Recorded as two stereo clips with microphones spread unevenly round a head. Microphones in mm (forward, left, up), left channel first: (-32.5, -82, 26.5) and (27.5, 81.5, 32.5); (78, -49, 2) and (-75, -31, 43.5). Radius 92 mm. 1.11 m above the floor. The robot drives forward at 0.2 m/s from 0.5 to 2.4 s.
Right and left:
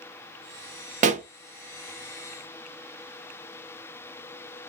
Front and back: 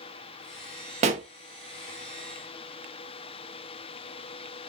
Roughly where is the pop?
Behind left.